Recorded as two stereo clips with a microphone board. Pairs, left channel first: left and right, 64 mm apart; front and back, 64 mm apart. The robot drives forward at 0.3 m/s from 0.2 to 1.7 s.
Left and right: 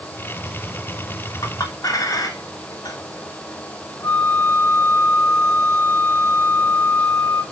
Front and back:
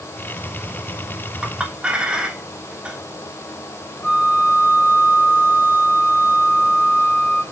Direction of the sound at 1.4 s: 105° left.